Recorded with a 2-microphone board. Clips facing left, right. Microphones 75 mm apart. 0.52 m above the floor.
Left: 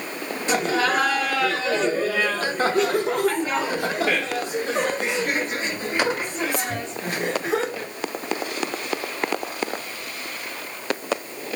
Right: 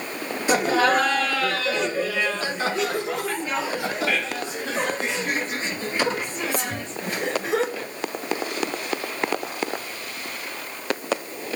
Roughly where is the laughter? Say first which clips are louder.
Right 2 dB; centre.